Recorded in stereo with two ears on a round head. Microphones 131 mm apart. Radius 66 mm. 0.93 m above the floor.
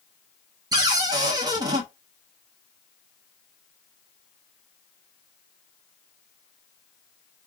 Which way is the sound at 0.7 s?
30° right (ahead or behind).